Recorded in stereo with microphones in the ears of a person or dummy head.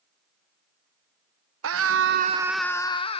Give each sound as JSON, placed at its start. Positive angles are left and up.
{"t": 1.6, "sound": "a scream", "side_deg": -75, "distance_m": 0.9}